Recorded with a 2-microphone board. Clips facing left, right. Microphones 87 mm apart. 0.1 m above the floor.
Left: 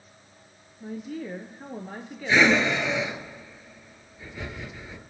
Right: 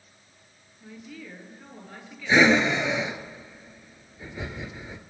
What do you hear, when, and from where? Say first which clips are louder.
0.8 s a woman speaking: left 8 dB; 45° left (ahead or behind), 1.5 m
2.3 s breathing: right 1 dB; 15° right (ahead or behind), 1.0 m